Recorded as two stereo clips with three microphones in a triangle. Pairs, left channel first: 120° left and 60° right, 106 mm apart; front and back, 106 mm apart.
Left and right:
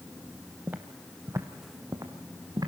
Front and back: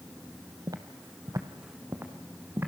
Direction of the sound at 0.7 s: 130° right.